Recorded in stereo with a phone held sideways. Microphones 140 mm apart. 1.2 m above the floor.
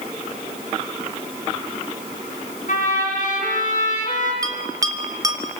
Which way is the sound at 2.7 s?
65° left (ahead or behind).